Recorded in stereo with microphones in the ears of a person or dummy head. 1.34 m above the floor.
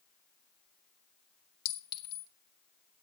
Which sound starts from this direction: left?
A clink, at 1.6 s.